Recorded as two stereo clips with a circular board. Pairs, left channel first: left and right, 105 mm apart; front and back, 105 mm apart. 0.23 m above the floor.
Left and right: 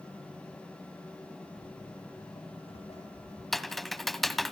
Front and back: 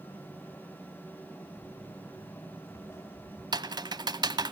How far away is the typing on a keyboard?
About 1.2 m.